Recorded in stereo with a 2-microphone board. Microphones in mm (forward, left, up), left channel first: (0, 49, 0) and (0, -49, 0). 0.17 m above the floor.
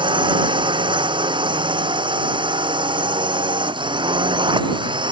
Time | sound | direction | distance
0.0 | a drone | 60° right (ahead or behind) | ?